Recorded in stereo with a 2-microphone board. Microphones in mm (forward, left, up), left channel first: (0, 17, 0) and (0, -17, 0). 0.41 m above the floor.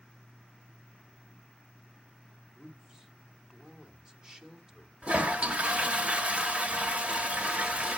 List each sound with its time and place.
2.5 s a man speaking: 15° right (ahead or behind), 1.5 m
5.0 s a toilet flushing: 35° right (ahead or behind), 1.1 m